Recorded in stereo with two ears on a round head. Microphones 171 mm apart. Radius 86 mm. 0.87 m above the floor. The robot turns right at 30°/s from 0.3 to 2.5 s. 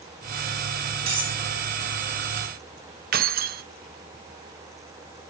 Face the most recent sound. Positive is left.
turn(degrees=-50)  # may be behind; listen again after turning